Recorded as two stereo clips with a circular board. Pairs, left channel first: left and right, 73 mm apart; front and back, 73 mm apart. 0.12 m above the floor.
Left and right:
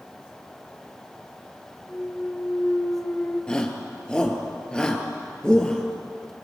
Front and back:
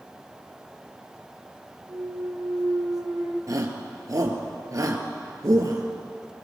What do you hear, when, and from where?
1.9 s a clunk: 155° left, 3.5 m
3.5 s a shout: 165° left, 3 m